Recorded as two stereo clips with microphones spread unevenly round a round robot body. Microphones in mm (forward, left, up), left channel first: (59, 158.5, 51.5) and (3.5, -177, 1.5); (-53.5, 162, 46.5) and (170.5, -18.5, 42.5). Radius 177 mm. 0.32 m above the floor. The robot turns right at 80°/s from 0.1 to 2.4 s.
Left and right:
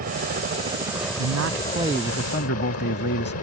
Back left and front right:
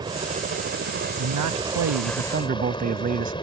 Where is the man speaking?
80° right; by 3.3 s 20° left.